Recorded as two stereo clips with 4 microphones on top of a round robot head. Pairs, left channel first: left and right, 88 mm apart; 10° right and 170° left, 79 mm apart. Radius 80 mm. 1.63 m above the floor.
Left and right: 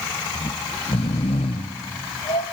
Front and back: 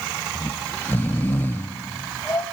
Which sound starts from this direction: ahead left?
Snoring, at 0.3 s.